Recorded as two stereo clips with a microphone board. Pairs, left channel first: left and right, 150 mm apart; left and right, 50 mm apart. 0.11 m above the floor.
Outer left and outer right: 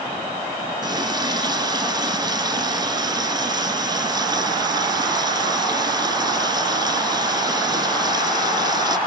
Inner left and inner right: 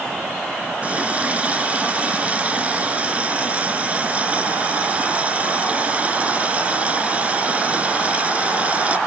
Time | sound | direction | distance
0.8 | a running tap | 30° right (ahead or behind) | 1.0 m